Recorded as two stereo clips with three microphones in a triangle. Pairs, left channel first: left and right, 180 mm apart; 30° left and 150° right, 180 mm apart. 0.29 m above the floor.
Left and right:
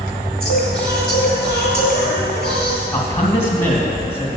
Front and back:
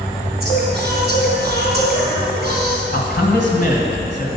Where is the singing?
125° right, 3 m.